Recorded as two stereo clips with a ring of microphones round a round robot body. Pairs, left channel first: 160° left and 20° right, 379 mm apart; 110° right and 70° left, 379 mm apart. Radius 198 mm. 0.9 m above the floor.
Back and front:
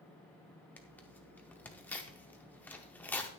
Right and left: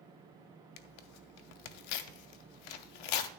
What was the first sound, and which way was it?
Tearing paper, 115° right.